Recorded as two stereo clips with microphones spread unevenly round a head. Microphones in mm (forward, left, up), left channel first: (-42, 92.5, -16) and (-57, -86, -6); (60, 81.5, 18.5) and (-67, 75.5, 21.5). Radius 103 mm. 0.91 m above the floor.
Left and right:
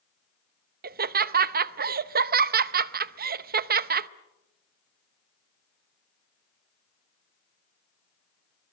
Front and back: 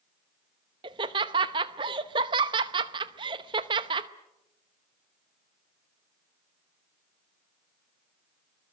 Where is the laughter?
120° right, 0.8 m.